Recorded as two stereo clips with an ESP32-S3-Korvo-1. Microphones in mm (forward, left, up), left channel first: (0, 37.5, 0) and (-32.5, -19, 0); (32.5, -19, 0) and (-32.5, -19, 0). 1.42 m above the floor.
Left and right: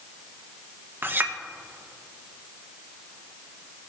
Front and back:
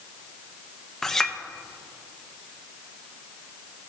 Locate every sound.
1.0 s a clink: 85° right, 0.7 m